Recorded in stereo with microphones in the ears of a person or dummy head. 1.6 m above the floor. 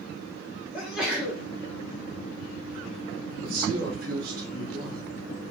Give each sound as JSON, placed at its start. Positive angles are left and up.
{"t": 0.7, "sound": "a sneeze", "side_deg": 0, "distance_m": 1.0}
{"t": 3.4, "sound": "a man speaking", "side_deg": -60, "distance_m": 2.0}